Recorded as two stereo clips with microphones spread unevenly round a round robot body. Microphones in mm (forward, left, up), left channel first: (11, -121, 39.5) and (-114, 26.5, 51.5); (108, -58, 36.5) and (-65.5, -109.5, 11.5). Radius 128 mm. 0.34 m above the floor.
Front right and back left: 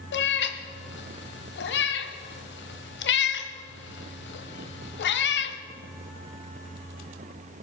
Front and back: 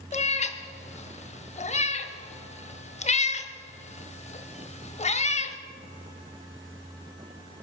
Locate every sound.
0.1 s a cat meowing: 40° right, 1.1 m